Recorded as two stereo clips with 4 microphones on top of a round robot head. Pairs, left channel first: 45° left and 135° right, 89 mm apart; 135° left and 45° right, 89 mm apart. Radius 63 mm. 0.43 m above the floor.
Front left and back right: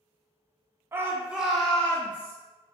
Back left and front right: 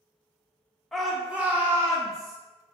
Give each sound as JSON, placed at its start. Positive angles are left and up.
{"t": 0.9, "sound": "a shout", "azimuth_deg": -140, "distance_m": 0.8}